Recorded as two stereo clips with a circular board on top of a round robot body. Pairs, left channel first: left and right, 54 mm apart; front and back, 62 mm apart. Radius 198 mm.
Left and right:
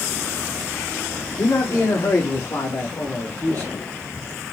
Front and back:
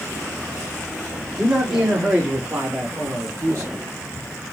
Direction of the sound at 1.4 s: 90° left.